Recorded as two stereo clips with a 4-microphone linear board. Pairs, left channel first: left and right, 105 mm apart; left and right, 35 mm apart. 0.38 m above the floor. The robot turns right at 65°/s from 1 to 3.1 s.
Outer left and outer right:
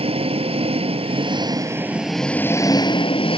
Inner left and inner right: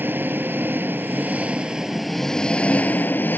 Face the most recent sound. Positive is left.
turn(degrees=65)